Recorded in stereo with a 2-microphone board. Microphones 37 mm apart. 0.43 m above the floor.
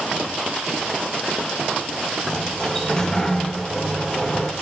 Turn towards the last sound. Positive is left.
turn(degrees=20)  # may be behind; listen again after turning